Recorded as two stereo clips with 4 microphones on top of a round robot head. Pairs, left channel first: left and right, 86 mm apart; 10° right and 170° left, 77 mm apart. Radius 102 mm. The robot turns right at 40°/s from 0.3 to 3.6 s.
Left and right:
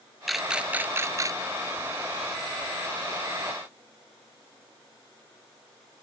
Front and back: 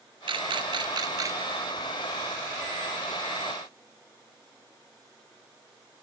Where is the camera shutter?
Straight behind; by 1.4 s 135° right.